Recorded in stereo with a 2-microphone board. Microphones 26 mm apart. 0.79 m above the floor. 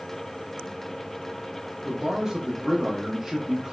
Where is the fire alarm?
No fire alarm in this recording.